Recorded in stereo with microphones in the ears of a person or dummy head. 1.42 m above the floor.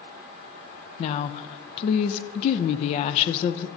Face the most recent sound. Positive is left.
turn(degrees=50)  # may be behind; listen again after turning